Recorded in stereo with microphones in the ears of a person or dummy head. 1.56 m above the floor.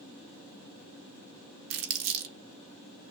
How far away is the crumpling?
About 1.3 m.